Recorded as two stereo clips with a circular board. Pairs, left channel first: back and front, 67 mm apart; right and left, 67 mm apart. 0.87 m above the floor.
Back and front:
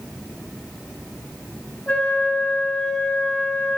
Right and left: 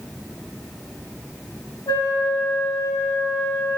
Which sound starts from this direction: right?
A flute, at 1.9 s.